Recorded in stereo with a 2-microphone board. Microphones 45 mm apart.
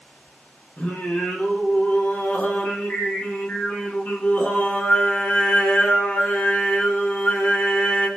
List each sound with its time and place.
0.8 s singing: 40° left (ahead or behind), 0.8 m